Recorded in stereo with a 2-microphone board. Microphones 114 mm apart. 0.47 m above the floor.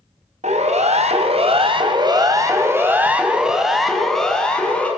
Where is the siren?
70° right (ahead or behind), 4 m; by 4.9 s 10° left (ahead or behind), 6 m.